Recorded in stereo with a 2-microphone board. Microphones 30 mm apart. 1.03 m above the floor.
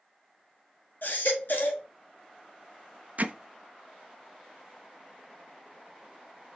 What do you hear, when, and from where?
1.0 s a baby crying: 80° left, 1.4 m
3.2 s hammering: 60° right (ahead or behind), 0.7 m